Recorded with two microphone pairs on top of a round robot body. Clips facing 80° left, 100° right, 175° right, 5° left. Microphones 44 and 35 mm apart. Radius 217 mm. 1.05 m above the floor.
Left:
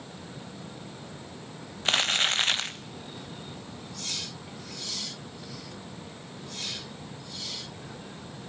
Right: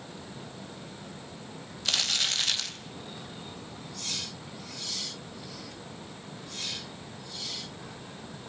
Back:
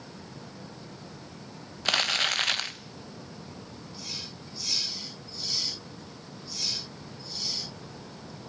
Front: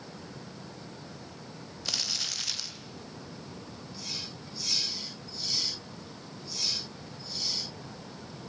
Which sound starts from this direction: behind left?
Crumpling, at 1.9 s.